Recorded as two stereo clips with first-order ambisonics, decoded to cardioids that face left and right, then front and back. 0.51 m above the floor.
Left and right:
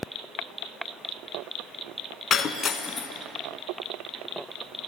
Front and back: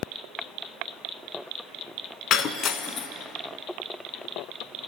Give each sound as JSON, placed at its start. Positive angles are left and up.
{"t": 2.3, "sound": "breaking glass", "azimuth_deg": 35, "distance_m": 0.5}